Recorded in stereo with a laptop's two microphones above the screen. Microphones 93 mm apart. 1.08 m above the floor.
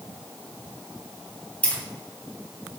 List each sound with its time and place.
1.6 s keys jangling: 15° left (ahead or behind), 2.5 m